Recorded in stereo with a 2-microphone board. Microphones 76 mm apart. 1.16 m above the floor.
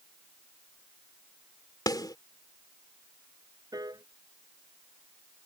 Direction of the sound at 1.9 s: 60° left (ahead or behind).